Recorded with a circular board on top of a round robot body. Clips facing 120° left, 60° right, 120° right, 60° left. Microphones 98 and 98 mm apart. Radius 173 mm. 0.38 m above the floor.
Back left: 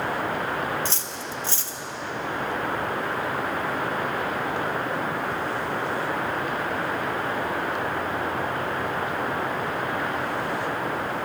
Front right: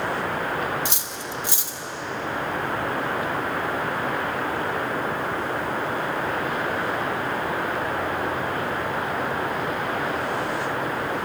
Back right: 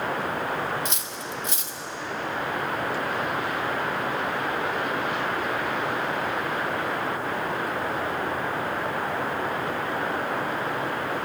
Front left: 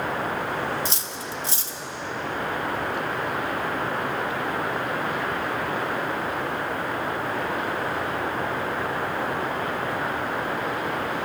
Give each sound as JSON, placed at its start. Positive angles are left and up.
{"t": 0.8, "sound": "cutlery clinking", "azimuth_deg": 10, "distance_m": 0.9}